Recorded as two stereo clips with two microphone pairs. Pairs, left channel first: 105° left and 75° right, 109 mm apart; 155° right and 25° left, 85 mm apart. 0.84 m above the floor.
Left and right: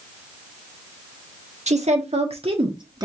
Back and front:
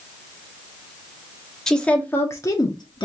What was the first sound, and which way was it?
A woman speaking, 75° right.